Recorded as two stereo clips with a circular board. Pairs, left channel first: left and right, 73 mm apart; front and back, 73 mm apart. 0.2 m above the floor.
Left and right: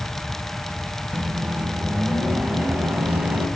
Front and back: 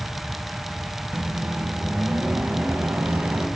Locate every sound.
1.1 s a microwave: 135° right, 1.0 m